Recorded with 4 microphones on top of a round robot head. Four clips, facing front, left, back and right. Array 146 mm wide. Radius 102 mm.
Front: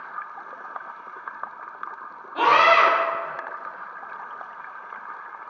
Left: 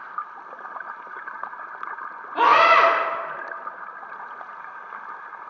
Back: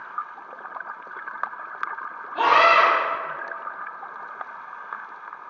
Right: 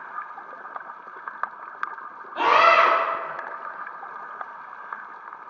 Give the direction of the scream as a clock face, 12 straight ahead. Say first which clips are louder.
Left 2 dB, even; 9 o'clock.